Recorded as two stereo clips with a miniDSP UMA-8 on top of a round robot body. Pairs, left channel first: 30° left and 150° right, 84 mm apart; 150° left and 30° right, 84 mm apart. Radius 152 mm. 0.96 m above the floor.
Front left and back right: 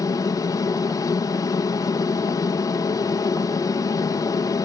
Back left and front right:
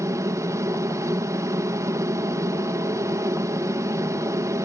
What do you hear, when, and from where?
0.0 s an aircraft: 5° left